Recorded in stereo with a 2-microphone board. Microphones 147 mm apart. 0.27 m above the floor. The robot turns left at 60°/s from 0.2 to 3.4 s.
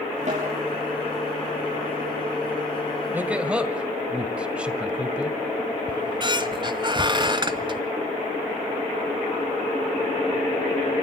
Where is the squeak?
30° right (ahead or behind), 0.9 m.